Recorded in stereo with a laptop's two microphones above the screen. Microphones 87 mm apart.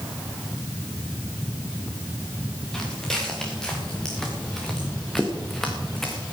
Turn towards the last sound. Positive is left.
turn(degrees=5)  # may be behind; listen again after turning